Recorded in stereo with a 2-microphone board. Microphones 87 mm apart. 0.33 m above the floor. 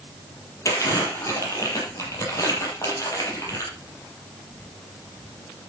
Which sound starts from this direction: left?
Crumpling, at 0.7 s.